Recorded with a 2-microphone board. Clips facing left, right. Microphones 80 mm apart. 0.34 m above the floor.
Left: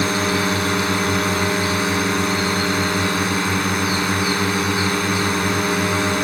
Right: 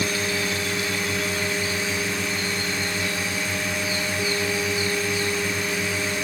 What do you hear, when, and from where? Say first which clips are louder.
0.0 s a drone: left 6 dB; 60° left (ahead or behind)